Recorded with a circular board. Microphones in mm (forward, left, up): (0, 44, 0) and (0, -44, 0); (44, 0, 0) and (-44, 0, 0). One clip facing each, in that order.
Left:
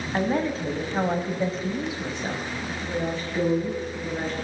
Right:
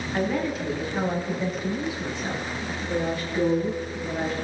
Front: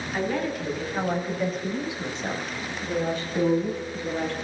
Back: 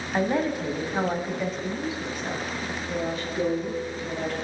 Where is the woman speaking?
135° left, 1.6 m; by 4.3 s 5° right, 2.5 m.